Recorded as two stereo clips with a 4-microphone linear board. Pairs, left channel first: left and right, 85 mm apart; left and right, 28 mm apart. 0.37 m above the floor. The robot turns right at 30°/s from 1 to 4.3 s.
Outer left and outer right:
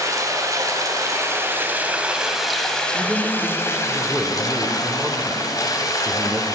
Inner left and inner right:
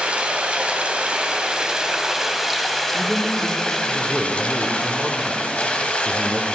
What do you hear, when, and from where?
0.0 s running water: 45° right, 1.3 m; by 6.5 s 55° left, 1.3 m
2.9 s a man speaking: centre (ahead or behind), 0.9 m; by 6.5 s 15° right (ahead or behind), 0.9 m